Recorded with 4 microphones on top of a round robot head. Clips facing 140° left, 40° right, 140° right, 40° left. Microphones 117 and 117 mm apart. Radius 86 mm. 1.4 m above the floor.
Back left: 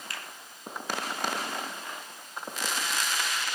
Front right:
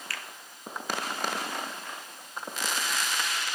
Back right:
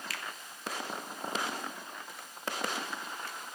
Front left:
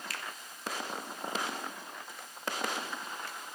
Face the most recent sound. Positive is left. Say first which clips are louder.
# front right 1 dB, front left 1 dB
turn(degrees=-145)